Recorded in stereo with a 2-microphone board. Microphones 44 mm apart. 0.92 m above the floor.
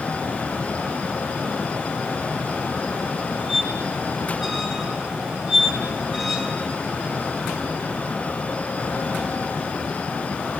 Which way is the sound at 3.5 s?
10° right (ahead or behind).